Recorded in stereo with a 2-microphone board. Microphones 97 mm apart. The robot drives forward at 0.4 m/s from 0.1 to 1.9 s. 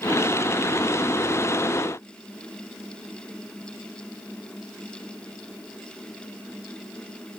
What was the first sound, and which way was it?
Only background noise.